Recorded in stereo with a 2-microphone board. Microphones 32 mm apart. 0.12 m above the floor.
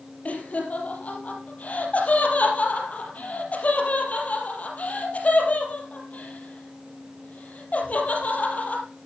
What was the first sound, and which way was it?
Laughter, 50° left (ahead or behind).